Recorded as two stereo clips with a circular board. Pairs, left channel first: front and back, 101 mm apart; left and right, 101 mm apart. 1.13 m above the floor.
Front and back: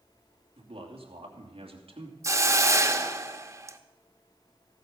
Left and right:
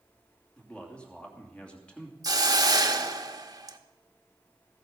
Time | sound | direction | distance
0.6 | a man speaking | 170° left | 2.5 m
2.2 | a hiss | 130° right | 1.0 m